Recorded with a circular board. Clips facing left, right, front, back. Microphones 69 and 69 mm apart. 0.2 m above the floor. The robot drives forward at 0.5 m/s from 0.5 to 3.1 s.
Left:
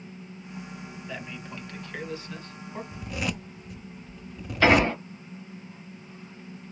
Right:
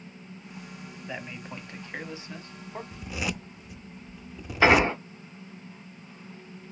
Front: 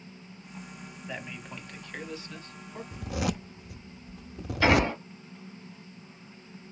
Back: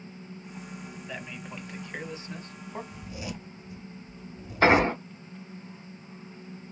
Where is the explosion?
155° right, 1.1 m.